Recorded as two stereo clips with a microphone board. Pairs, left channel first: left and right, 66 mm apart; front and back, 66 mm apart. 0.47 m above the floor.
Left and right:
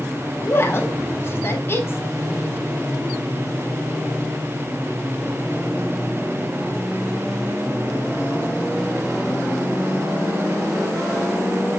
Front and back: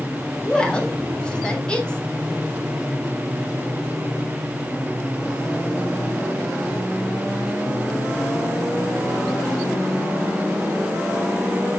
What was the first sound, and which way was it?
A woman speaking, 70° left.